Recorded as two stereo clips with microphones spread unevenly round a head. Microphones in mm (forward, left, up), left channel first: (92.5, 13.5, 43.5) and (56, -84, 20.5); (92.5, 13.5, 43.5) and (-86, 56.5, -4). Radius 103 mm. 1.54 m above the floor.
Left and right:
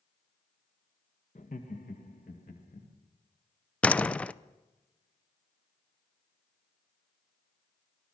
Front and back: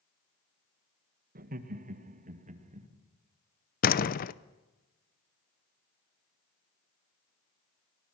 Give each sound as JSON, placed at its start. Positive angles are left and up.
{"t": 1.4, "sound": "laughter", "azimuth_deg": 125, "distance_m": 1.7}
{"t": 3.8, "sound": "a door slam", "azimuth_deg": 0, "distance_m": 0.6}